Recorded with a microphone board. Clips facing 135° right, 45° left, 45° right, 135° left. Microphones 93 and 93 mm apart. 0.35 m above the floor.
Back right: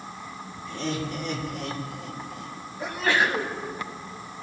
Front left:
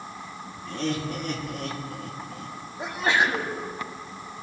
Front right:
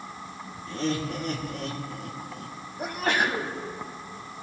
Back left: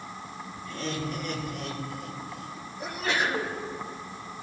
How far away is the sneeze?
About 2.0 m.